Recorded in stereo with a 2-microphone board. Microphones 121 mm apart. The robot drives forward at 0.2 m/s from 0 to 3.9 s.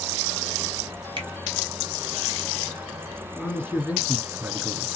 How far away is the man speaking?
About 2 m.